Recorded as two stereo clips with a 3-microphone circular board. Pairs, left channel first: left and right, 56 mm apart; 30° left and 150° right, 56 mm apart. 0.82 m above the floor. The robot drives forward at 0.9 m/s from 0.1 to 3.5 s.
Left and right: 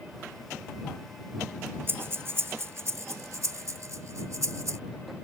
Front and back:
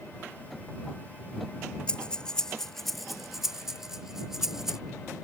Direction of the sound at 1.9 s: 40° right.